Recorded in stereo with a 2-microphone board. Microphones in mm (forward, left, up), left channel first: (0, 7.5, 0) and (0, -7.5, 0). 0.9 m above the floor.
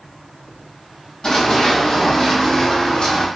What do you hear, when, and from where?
1.2 s running footsteps: 60° left (ahead or behind), 1.9 m; by 3.3 s 65° left (ahead or behind), 2.5 m